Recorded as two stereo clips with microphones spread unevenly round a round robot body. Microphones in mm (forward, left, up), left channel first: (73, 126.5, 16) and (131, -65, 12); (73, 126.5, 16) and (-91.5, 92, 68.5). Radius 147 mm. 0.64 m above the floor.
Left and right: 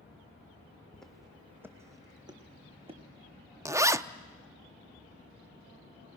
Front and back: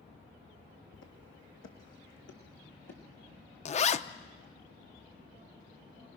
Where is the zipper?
Straight ahead, 0.6 m.